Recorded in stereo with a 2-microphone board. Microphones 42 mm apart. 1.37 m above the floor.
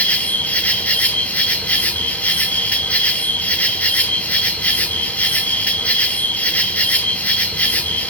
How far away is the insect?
About 1.1 m.